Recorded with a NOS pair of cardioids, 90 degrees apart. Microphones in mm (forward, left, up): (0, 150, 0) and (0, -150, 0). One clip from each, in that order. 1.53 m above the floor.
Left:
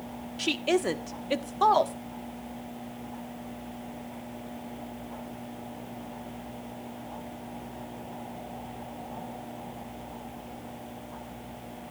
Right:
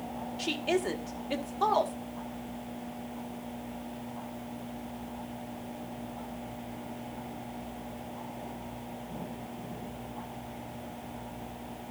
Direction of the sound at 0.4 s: 25° left.